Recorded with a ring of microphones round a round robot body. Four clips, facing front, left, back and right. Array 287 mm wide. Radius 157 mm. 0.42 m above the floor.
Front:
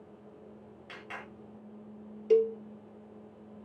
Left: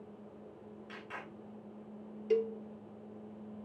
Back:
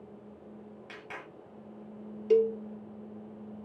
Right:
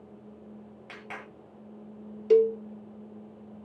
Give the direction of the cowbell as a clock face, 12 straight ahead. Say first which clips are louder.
Right 11 dB, even; 3 o'clock.